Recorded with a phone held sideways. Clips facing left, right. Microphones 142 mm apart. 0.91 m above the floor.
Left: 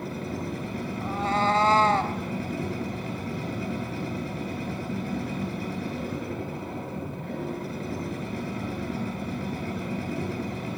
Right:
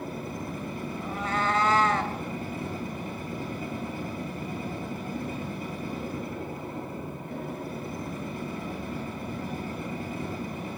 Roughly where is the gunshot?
I don't hear a gunshot.